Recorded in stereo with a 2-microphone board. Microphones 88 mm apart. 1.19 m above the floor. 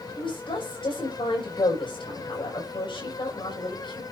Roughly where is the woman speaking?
Left.